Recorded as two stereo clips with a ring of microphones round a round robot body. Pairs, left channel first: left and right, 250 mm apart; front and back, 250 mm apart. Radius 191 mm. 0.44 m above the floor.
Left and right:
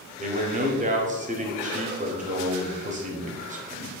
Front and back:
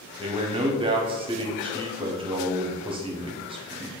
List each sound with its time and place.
0.2 s a man speaking: 125° right, 0.9 m